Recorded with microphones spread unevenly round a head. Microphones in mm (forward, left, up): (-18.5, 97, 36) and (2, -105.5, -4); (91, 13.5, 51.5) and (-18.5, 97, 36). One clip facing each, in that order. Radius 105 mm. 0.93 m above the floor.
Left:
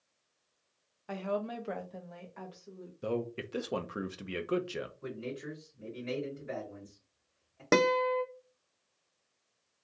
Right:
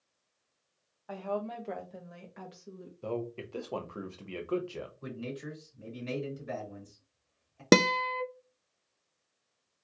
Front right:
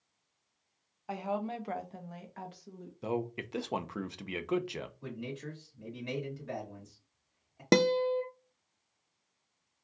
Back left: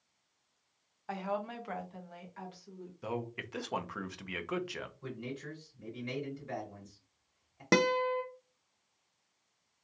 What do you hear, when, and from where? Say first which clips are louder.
1.1 s a woman speaking: left 1 dB, front right 2 dB; 40° left, 0.9 m; by 2.9 s 65° right, 1.1 m
3.0 s a man speaking: left 2 dB, front right 4 dB; 20° left, 0.6 m
5.0 s a man speaking: even, front right 1 dB; 50° right, 2.5 m
7.7 s a guitar: right 2 dB, front right 3 dB; 105° right, 0.5 m